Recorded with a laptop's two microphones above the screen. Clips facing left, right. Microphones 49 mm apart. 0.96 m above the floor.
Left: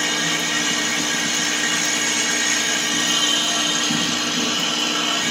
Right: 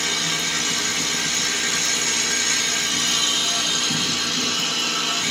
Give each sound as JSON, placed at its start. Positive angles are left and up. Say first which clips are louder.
{"t": 0.0, "sound": "a machine running", "louder": "left 3 dB", "side_deg": 35, "distance_m": 0.7}